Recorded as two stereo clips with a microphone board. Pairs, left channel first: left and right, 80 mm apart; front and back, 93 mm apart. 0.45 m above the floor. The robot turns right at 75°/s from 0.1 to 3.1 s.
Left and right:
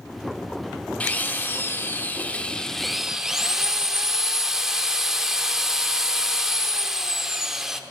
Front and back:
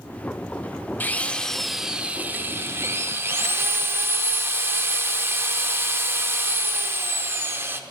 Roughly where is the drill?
Ahead left.